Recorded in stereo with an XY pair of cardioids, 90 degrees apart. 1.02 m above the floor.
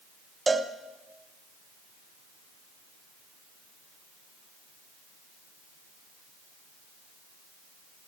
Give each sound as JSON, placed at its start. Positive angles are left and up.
{"t": 0.5, "sound": "a cowbell", "azimuth_deg": -25, "distance_m": 0.9}